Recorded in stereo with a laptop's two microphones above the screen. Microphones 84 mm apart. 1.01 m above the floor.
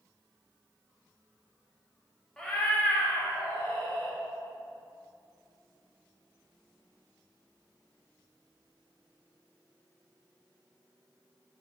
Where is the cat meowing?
5° left (ahead or behind), 0.6 m; by 4.2 s 35° left (ahead or behind), 1.4 m.